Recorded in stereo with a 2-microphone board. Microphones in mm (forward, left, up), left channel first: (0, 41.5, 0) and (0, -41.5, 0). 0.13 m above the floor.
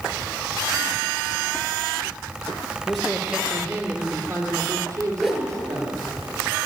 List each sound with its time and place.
2.9 s a man speaking: 5° left (ahead or behind), 1.6 m; by 6.0 s 40° right (ahead or behind), 5 m
5.2 s a whoosh: 5° right (ahead or behind), 1.9 m